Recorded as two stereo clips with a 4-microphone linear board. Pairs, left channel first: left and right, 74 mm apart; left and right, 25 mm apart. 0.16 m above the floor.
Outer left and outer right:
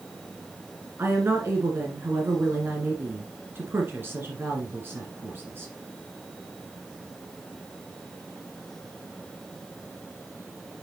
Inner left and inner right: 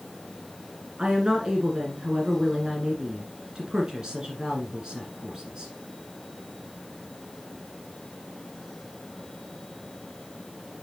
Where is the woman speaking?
30° right (ahead or behind), 1.7 m.